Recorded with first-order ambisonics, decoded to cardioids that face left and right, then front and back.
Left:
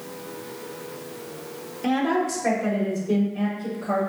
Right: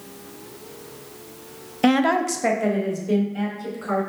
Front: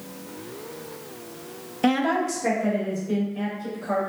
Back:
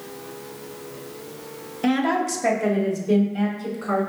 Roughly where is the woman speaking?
Right.